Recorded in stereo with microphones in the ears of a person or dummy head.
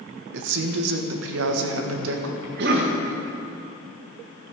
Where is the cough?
60° right (ahead or behind), 1.7 m.